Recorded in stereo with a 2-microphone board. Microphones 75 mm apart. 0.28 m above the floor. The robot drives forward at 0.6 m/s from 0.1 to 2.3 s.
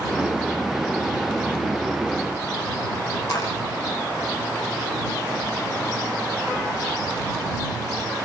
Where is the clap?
60° left (ahead or behind), 9 m.